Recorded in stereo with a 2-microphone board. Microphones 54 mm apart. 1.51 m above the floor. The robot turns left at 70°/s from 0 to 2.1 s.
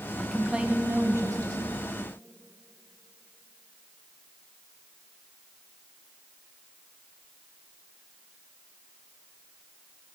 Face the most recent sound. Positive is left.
turn(degrees=-125)